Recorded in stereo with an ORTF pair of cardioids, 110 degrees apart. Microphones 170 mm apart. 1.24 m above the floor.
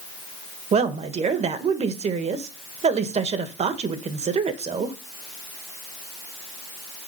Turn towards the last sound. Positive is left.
turn(degrees=-40)